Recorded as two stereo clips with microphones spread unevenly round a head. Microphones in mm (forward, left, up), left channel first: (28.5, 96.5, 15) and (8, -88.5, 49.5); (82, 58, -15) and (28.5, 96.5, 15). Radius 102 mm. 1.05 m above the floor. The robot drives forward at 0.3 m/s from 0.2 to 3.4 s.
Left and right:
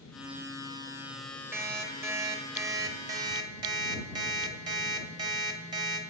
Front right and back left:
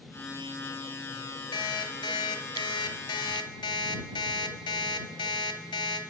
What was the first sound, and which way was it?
An alarm clock, 20° right.